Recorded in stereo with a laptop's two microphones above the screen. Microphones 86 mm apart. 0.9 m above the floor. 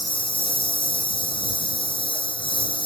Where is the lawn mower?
75° left (ahead or behind).